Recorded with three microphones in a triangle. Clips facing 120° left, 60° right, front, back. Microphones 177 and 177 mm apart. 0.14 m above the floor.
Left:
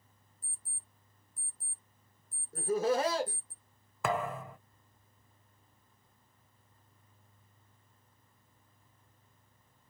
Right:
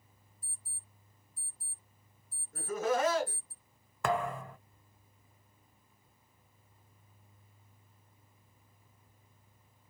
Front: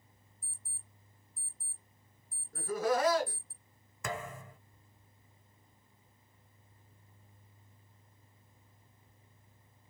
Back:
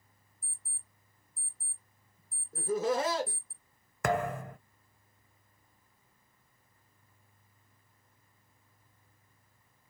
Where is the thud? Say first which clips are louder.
Right 1 dB, back 10 dB; 155° right, 0.6 m.